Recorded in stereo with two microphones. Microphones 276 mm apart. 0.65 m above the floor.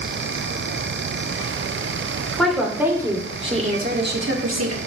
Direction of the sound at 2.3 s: Centre (ahead or behind).